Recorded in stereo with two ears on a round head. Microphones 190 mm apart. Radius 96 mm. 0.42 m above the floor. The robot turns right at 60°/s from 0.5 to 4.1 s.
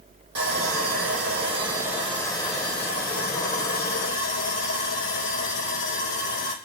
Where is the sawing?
95° right, 5.5 m; by 6.5 s 125° left, 5.5 m.